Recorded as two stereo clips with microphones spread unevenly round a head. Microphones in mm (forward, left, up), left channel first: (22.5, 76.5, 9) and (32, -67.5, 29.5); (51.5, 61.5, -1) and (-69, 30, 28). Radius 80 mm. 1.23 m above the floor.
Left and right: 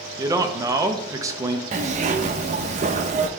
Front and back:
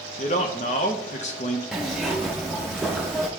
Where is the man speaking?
15° right, 0.9 m.